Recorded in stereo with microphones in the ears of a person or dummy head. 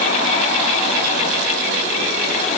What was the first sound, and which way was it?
Only background noise.